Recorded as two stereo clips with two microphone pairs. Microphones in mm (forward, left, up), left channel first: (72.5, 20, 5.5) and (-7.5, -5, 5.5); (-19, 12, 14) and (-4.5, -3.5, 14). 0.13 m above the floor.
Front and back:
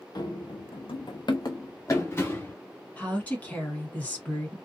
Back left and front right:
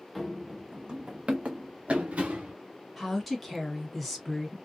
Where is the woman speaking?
45° left, 1.3 m.